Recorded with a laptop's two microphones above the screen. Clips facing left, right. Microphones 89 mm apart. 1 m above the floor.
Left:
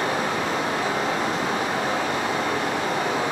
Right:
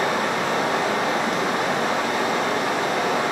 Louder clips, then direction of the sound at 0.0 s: Right 2 dB; 85° right.